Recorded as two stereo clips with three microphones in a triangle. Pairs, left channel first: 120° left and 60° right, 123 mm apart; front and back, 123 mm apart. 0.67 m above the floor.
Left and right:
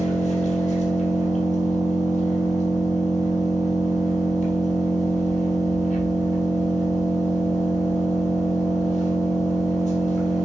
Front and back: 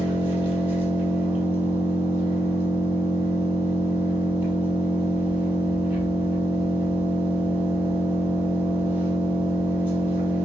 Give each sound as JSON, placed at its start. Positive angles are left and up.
{"t": 0.0, "sound": "an engine running", "azimuth_deg": 100, "distance_m": 4.0}